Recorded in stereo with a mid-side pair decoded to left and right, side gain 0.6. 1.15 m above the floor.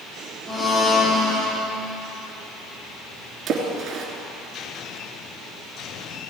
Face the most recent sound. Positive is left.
turn(degrees=-40)